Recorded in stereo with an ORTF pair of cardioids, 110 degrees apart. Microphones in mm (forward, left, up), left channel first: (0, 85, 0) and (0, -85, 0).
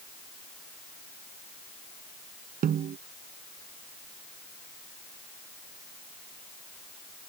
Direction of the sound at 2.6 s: 55° right.